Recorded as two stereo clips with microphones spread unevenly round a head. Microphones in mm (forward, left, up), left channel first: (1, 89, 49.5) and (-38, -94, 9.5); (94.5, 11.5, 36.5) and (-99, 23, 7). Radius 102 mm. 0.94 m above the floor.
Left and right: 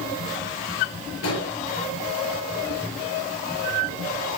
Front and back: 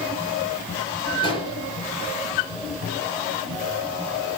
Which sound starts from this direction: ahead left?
An explosion, at 1.2 s.